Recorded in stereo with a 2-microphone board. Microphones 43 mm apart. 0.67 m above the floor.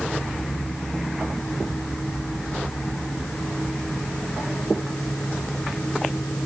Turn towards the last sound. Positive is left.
No sound to turn to.